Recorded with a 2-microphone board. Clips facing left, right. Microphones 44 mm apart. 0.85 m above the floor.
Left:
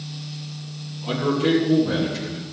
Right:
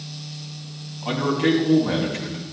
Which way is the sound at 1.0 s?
65° right (ahead or behind).